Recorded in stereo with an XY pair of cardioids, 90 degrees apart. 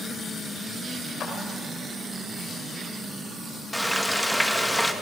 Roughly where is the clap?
Ahead left.